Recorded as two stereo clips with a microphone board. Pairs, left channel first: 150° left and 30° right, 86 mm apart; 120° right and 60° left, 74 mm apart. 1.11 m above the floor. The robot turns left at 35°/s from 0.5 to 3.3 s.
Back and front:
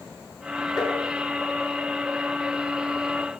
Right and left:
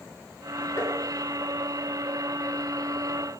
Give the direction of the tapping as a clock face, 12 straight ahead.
6 o'clock.